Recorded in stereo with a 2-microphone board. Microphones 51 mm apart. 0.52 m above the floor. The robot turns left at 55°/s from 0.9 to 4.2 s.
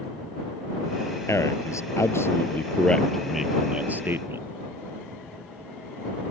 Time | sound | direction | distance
1.3 | a man speaking | 110° left | ?